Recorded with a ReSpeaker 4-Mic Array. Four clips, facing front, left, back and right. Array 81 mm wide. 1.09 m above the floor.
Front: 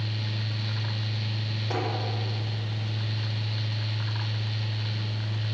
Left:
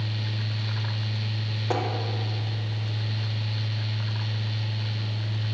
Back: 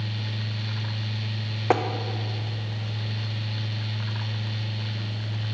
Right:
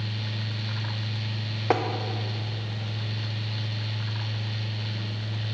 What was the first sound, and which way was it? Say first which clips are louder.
Tapping: right 4 dB, back 9 dB; 155° right.